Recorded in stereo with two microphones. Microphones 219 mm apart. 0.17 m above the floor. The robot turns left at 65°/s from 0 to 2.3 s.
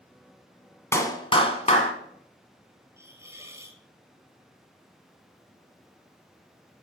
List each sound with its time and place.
0.9 s a clap: 155° left, 1.0 m; by 1.9 s 90° left, 1.0 m
3.0 s a hiss: 15° right (ahead or behind), 0.9 m